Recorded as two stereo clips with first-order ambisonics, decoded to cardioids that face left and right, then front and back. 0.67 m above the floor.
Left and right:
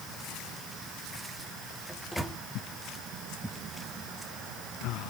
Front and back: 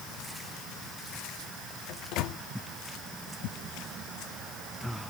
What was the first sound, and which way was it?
A microwave, 5° left.